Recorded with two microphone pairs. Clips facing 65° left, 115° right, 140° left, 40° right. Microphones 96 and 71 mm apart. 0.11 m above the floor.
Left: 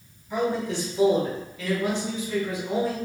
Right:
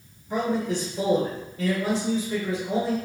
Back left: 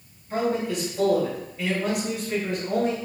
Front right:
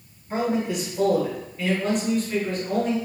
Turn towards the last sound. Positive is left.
turn(degrees=-170)